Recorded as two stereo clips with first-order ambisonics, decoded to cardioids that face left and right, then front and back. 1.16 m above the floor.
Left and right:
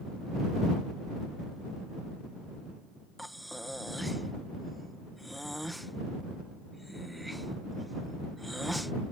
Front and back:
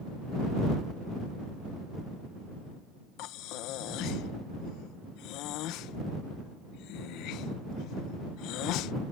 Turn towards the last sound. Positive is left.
turn(degrees=0)